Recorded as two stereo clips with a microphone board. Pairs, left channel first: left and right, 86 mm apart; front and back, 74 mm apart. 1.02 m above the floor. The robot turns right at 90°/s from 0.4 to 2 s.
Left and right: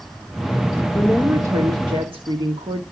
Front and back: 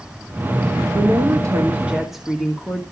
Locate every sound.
0.9 s a woman speaking: 170° left, 1.5 m; by 2.8 s 95° right, 1.5 m